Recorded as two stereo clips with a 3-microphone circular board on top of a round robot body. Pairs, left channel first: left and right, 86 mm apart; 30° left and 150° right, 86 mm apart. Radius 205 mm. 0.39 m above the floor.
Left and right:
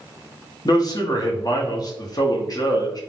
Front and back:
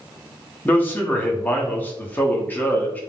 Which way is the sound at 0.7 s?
95° left.